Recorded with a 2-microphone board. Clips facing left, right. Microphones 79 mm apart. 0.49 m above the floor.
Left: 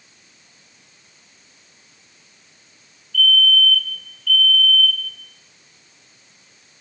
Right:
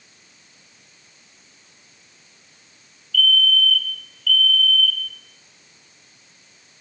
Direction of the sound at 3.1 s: 20° left (ahead or behind).